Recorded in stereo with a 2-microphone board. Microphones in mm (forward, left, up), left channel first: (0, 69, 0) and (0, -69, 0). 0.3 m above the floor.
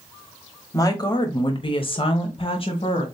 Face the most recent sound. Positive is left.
turn(degrees=40)  # may be behind; listen again after turning